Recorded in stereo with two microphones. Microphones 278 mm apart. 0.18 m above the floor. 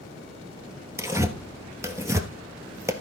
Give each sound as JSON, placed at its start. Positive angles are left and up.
{"t": 1.0, "sound": "tearing paper", "side_deg": -10, "distance_m": 1.0}